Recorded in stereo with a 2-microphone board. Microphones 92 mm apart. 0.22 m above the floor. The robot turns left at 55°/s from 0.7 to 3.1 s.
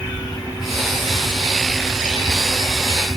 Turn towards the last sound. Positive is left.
No sound to turn to.